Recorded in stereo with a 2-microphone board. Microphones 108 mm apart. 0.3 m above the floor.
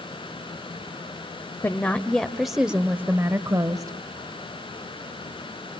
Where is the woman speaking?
20° left (ahead or behind), 1.2 m; by 4.0 s 35° right (ahead or behind), 1.4 m.